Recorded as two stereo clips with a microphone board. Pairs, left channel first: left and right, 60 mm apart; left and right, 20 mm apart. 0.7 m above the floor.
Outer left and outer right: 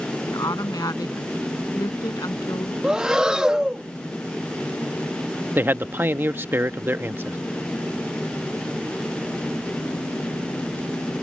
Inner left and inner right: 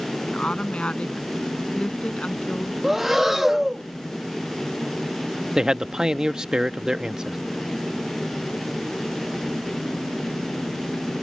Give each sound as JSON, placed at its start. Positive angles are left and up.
{"t": 0.3, "sound": "a woman speaking", "side_deg": 75}
{"t": 2.8, "sound": "breathing", "side_deg": -10}
{"t": 5.5, "sound": "a man speaking", "side_deg": -35}